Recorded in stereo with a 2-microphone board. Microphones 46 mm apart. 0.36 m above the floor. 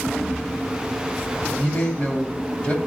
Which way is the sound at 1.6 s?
40° left (ahead or behind).